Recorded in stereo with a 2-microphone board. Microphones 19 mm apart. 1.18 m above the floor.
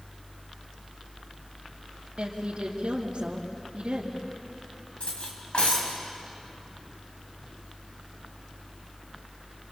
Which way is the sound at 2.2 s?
65° right (ahead or behind).